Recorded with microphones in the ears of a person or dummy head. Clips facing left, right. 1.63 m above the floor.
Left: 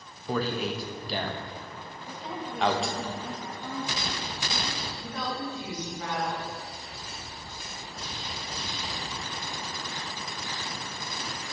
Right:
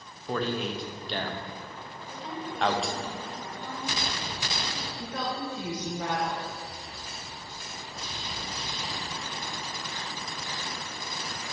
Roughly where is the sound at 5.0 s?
Right.